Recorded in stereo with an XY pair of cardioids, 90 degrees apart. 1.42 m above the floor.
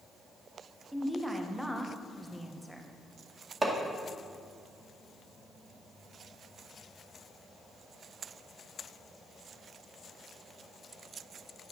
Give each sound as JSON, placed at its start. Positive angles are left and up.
{"t": 0.9, "sound": "a woman speaking", "azimuth_deg": 0, "distance_m": 1.4}
{"t": 3.6, "sound": "hammering", "azimuth_deg": -30, "distance_m": 2.0}